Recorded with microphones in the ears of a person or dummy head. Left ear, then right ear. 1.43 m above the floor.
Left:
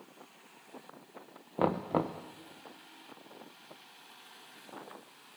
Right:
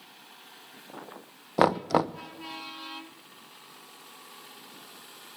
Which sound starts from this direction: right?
Knocking, at 1.6 s.